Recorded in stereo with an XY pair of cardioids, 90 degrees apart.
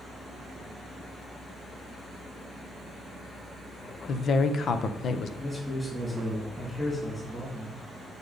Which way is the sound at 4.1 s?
60° left.